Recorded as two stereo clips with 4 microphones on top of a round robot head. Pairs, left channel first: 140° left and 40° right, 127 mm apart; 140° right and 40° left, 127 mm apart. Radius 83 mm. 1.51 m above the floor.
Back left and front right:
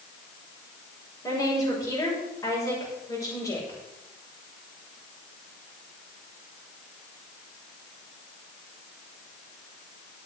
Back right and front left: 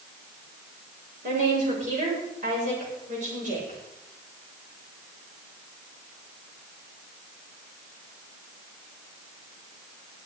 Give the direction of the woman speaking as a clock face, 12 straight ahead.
10 o'clock.